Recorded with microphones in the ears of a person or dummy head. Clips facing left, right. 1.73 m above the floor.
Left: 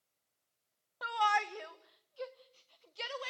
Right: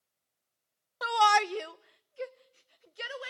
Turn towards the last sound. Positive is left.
turn(degrees=-10)  # may be behind; listen again after turning